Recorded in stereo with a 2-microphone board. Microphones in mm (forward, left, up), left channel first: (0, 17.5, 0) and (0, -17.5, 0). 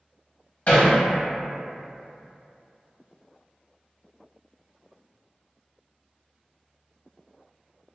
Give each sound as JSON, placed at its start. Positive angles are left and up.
{"t": 0.7, "sound": "hammering", "side_deg": 45, "distance_m": 0.8}